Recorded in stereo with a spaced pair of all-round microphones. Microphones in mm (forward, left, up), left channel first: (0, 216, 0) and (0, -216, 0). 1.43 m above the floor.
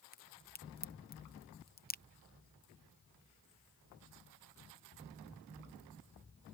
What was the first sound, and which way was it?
A crack, 20° left (ahead or behind).